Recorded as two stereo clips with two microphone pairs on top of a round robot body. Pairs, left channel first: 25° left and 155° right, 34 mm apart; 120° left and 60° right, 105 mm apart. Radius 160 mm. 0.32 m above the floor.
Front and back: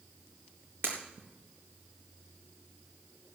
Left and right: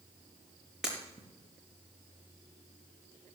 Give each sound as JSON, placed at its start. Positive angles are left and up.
{"t": 0.8, "sound": "breaking glass", "azimuth_deg": -145, "distance_m": 4.5}